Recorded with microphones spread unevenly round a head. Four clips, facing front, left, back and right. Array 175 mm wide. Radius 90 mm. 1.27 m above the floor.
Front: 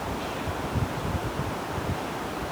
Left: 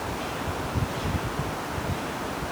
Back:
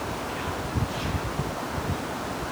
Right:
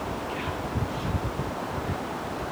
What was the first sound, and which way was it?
Only background noise.